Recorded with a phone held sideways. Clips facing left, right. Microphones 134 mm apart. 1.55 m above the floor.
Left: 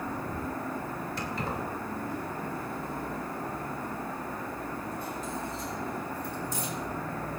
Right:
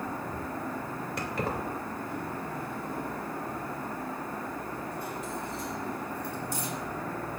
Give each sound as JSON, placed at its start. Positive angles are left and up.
{"t": 1.2, "sound": "keys jangling", "side_deg": -70, "distance_m": 2.5}